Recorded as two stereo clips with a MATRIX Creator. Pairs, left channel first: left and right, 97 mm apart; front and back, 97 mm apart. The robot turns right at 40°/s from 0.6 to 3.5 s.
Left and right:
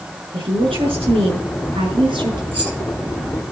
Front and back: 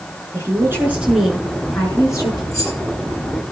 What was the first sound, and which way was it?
A woman speaking, 120° right.